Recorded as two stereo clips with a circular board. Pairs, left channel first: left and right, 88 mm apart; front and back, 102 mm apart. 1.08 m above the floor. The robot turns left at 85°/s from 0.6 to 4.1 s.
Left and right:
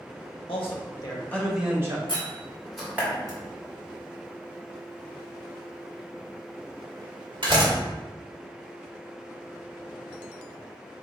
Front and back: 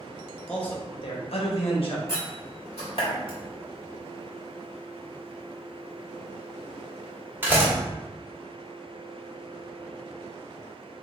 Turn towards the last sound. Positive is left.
turn(degrees=-110)